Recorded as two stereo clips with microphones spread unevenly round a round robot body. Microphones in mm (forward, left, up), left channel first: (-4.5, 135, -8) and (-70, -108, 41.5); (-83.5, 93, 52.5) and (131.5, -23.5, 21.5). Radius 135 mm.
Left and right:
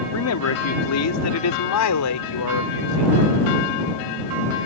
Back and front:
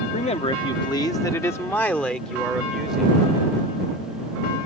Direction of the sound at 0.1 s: 85° left.